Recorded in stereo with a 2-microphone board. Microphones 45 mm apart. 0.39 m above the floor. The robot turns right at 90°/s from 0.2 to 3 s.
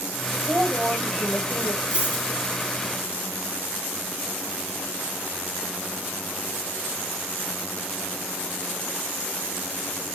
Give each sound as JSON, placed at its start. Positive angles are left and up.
{"t": 0.3, "sound": "a woman speaking", "azimuth_deg": -75, "distance_m": 1.7}
{"t": 1.9, "sound": "a dropped coin", "azimuth_deg": -155, "distance_m": 4.0}